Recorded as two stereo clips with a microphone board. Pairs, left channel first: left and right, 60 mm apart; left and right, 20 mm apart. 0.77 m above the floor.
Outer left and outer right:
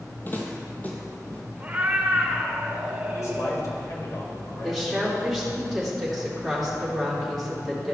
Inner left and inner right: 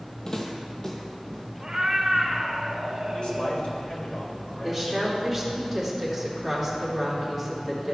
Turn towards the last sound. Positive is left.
turn(degrees=-5)  # may be behind; listen again after turning